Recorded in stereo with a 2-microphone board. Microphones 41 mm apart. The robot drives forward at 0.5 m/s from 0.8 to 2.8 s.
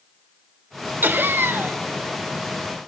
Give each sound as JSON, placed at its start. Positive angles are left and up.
{"t": 1.0, "sound": "laughter", "side_deg": -50, "distance_m": 0.6}